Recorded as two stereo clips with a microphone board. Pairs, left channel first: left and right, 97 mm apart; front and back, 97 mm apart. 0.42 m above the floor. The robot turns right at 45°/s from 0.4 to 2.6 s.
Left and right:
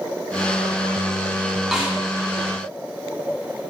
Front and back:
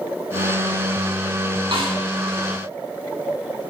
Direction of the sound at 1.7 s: 175° right.